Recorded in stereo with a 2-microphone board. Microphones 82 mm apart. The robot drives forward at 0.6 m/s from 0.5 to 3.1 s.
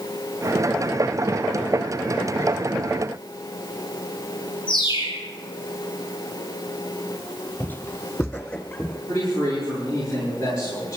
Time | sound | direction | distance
4.7 | a bird | 70° left (ahead or behind) | 7.5 m
7.6 | footsteps | 20° left (ahead or behind) | 0.7 m
9.1 | a man speaking | 35° left (ahead or behind) | 8.5 m